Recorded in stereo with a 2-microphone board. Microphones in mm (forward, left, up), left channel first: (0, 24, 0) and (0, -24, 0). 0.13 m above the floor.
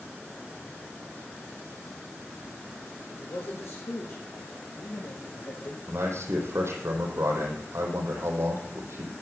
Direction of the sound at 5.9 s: 65° right (ahead or behind).